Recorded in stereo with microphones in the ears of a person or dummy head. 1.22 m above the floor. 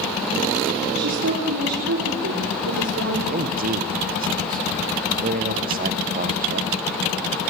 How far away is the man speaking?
About 1.0 m.